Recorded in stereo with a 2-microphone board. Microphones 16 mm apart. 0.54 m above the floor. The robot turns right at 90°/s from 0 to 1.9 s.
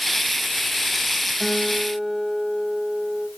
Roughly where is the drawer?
No drawer in this recording.